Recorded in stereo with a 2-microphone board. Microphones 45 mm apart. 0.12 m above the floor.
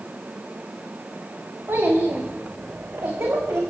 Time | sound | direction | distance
1.7 | a child speaking | 65° right (ahead or behind) | 5.5 m